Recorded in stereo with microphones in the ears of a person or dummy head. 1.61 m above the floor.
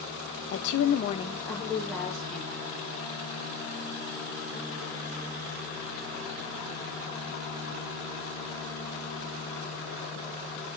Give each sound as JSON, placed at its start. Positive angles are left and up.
{"t": 0.5, "sound": "a woman speaking", "side_deg": 75, "distance_m": 0.7}